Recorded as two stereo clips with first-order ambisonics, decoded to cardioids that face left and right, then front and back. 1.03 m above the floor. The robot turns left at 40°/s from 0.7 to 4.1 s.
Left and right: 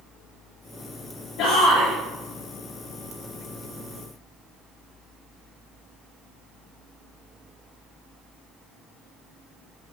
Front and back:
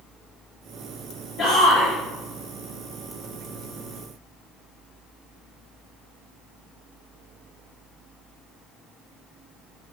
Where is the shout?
65° left, 3 m; by 1.9 s 40° left, 3 m.